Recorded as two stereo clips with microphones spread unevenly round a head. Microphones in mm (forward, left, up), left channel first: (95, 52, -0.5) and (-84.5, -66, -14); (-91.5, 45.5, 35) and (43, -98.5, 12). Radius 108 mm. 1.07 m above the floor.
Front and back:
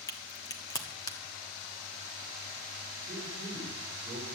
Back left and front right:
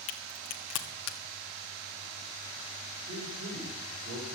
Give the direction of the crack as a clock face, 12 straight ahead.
8 o'clock.